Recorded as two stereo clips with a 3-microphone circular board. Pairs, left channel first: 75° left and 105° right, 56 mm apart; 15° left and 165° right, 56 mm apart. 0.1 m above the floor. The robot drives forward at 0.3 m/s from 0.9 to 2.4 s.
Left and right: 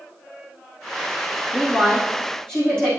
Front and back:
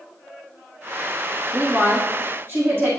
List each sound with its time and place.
1.5 s a woman speaking: 150° left, 4.5 m